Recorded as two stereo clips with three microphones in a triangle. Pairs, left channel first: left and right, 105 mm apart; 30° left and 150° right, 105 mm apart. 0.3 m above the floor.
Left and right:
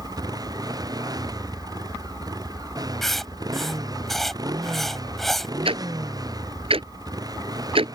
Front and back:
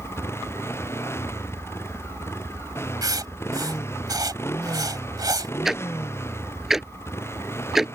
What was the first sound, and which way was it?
A motorcycle, 35° right.